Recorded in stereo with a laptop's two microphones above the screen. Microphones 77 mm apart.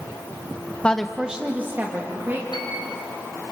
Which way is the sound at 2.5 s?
80° left.